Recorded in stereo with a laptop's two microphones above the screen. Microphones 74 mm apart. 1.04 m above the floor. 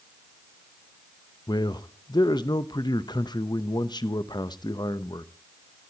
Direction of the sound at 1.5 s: 75° left (ahead or behind).